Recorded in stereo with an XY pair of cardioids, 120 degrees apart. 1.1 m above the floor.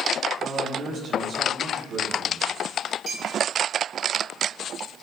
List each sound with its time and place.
0.4 s a man speaking: 50° right, 6.5 m
3.1 s a clink: 45° right, 6.5 m